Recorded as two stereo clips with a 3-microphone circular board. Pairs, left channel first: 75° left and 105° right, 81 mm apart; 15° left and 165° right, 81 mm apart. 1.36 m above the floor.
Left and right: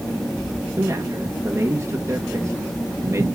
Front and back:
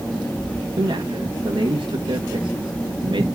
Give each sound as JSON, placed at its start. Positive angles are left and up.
{"t": 0.8, "sound": "a man speaking", "azimuth_deg": -160, "distance_m": 1.4}